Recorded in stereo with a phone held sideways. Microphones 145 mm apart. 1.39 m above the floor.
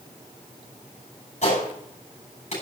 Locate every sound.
1.4 s a gunshot: 55° left (ahead or behind), 8 m